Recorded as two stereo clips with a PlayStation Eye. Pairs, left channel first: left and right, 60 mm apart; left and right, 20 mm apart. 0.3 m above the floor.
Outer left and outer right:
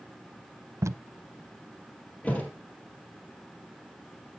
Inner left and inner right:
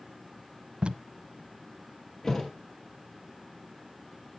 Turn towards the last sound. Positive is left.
turn(degrees=25)  # may be behind; listen again after turning